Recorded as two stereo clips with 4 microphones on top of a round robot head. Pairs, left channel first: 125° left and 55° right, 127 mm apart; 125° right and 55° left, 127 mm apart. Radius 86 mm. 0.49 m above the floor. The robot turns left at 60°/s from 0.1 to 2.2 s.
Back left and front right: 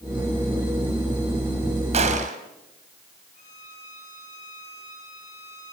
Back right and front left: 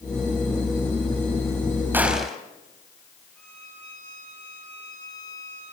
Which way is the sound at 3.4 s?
150° left.